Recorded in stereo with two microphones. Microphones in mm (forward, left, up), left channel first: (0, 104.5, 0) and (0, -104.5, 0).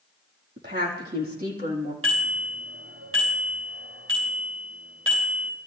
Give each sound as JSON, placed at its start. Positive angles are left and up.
{"t": 0.6, "sound": "a woman speaking", "side_deg": -50, "distance_m": 5.5}
{"t": 2.0, "sound": "a bicycle bell", "side_deg": -75, "distance_m": 9.0}